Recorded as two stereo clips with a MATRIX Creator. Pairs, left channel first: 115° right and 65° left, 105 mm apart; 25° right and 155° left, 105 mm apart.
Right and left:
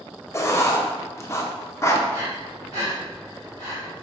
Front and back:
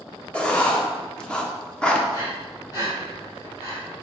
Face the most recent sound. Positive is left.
turn(degrees=25)